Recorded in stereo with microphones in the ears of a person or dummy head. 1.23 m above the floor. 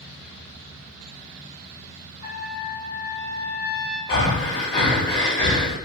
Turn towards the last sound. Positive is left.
turn(degrees=10)  # may be behind; listen again after turning